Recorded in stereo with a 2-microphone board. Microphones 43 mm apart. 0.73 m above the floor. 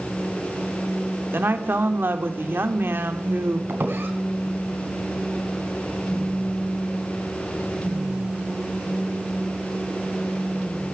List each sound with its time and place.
1.3 s a woman speaking: 60° right (ahead or behind), 2 m
3.7 s a squeak: 60° right (ahead or behind), 3 m